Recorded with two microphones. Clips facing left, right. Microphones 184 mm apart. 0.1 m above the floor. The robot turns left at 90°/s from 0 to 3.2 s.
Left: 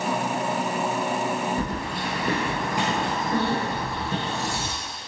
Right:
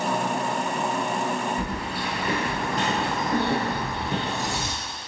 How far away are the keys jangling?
About 1.3 m.